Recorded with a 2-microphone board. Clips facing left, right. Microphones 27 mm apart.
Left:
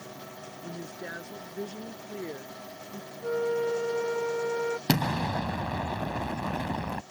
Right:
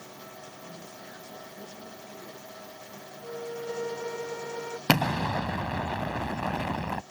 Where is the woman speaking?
70° left (ahead or behind).